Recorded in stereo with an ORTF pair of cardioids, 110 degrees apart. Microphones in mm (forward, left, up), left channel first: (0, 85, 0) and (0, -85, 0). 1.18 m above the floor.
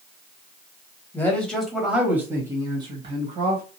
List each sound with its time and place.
1.1 s a man speaking: 15° left, 1.2 m; by 3.6 s 40° right, 1.4 m